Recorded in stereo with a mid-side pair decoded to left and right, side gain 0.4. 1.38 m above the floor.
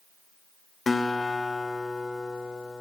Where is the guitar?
30° left, 0.5 m.